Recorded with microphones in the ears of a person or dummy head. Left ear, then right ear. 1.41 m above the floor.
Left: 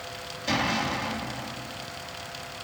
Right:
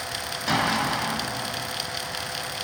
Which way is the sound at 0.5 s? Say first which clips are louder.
Right 3 dB; 25° right (ahead or behind).